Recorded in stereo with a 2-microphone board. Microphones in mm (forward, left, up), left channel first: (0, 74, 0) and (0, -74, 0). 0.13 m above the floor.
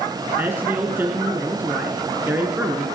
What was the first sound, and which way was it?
A man speaking, 15° right (ahead or behind).